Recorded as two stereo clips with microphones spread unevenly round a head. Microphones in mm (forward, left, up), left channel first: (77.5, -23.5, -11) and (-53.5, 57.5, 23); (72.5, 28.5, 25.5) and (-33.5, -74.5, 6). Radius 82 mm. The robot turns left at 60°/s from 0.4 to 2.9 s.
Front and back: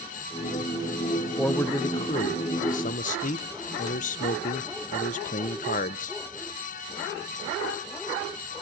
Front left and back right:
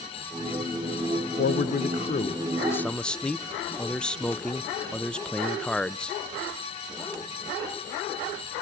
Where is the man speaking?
45° left, 0.6 m; by 6.2 s 45° right, 0.6 m.